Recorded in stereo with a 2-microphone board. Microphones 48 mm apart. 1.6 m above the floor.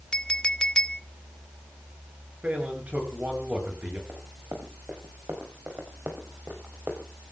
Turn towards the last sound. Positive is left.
turn(degrees=-35)  # may be behind; listen again after turning